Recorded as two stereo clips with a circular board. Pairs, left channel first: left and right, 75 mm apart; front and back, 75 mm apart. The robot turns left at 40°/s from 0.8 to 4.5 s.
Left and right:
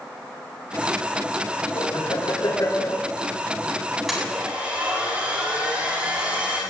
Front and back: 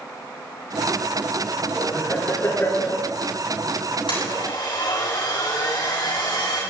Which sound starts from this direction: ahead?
A blender, at 4.1 s.